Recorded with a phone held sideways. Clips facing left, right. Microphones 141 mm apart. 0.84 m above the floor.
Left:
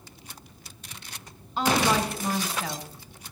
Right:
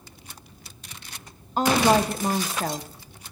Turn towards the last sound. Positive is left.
turn(degrees=-45)  # may be behind; listen again after turning